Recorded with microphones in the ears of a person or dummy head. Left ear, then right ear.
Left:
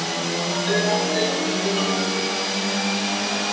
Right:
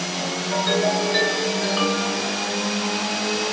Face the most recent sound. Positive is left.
turn(degrees=-65)  # may be behind; listen again after turning